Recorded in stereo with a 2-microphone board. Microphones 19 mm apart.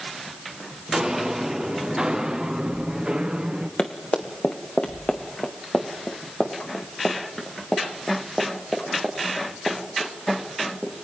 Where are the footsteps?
20° right (ahead or behind), 2.5 m; by 3.7 s 50° right (ahead or behind), 3.5 m.